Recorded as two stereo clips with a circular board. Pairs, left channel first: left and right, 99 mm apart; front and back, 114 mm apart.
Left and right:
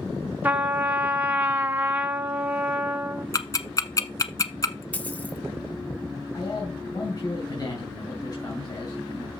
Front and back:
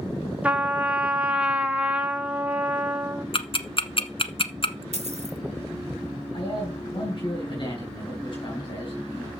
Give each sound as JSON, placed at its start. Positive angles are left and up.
{"t": 0.4, "sound": "a trumpet", "azimuth_deg": -120, "distance_m": 1.1}
{"t": 3.3, "sound": "ticking", "azimuth_deg": 35, "distance_m": 0.9}
{"t": 4.9, "sound": "a dropped coin", "azimuth_deg": 160, "distance_m": 1.4}
{"t": 6.3, "sound": "a man speaking", "azimuth_deg": 40, "distance_m": 4.5}